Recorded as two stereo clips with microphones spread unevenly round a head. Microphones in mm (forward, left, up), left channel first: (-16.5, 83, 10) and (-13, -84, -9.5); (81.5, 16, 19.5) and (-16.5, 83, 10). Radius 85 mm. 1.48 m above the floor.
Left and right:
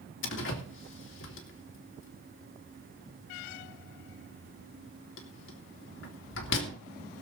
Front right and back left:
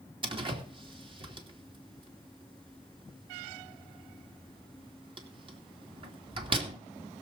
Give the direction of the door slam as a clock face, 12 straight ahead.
9 o'clock.